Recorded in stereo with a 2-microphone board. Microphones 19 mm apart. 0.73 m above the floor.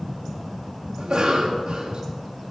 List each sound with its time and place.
1.0 s a cough: 50° right (ahead or behind), 1.1 m